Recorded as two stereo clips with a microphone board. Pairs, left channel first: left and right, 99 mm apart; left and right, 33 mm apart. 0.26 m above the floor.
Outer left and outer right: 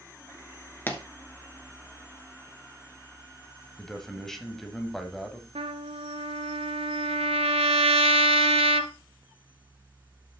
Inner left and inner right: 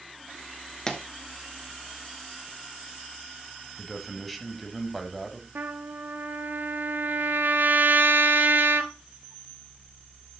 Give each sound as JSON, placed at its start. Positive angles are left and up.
{"t": 0.9, "sound": "a pop", "side_deg": 20, "distance_m": 1.3}
{"t": 3.8, "sound": "a man speaking", "side_deg": 5, "distance_m": 1.4}
{"t": 5.5, "sound": "a trumpet", "side_deg": -90, "distance_m": 0.7}